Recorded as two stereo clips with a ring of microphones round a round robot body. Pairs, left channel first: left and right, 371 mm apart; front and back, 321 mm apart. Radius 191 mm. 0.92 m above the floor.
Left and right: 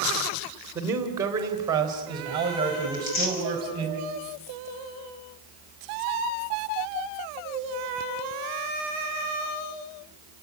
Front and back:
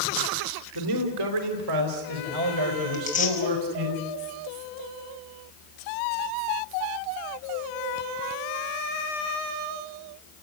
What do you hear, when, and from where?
0.8 s a man speaking: 175° right, 3 m; by 3.9 s 165° right, 5 m
2.9 s tearing paper: 65° left, 6 m